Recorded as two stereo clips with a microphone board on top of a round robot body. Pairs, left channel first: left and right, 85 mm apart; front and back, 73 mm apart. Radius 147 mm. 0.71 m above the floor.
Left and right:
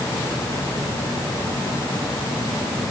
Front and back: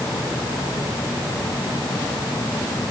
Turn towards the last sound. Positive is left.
No sound to turn to.